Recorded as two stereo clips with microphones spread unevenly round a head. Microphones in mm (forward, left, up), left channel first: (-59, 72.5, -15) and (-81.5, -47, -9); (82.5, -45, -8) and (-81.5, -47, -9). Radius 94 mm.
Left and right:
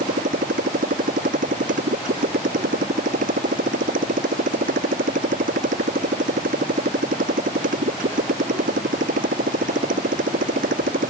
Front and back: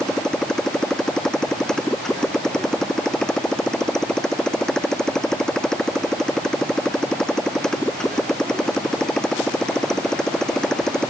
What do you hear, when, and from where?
0.0 s a motorcycle: 85° right